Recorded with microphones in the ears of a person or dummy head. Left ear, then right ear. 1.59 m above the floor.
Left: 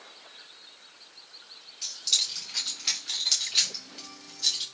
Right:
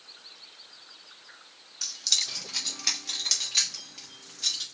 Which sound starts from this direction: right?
Keys jangling, at 1.8 s.